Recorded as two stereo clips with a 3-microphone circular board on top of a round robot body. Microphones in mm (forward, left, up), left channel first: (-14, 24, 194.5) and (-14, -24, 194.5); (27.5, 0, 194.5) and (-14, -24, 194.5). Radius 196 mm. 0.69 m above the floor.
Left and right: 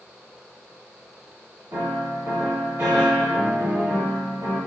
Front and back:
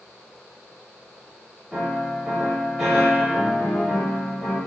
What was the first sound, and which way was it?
A piano, 75° right.